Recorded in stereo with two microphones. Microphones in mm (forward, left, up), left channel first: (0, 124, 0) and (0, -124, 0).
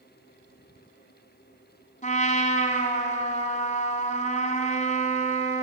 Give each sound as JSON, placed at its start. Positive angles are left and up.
{"t": 2.0, "sound": "a trumpet", "side_deg": 30, "distance_m": 1.8}